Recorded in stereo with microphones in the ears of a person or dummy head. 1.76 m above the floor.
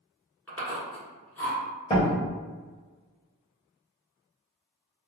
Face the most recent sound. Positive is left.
turn(degrees=25)  # may be behind; listen again after turning